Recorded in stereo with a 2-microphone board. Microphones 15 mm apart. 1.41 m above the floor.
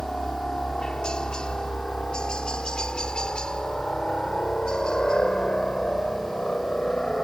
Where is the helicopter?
65° left (ahead or behind); by 7.2 s 55° left (ahead or behind).